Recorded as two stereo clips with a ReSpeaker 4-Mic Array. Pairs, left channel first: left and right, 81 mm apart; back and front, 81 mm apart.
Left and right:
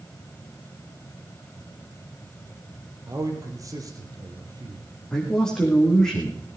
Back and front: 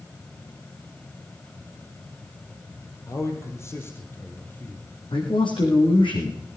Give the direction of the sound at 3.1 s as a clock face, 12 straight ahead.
4 o'clock.